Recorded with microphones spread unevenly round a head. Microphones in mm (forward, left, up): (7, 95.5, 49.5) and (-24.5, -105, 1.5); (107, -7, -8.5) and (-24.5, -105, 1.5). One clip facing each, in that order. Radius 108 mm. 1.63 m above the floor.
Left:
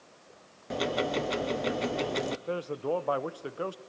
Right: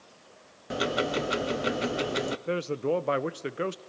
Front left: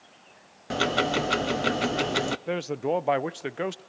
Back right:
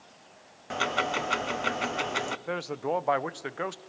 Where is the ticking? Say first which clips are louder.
Right 1 dB, front left 5 dB; 20° right, 0.7 m.